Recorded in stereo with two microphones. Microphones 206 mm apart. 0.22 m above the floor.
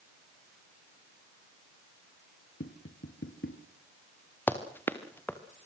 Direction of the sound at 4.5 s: 10° left (ahead or behind).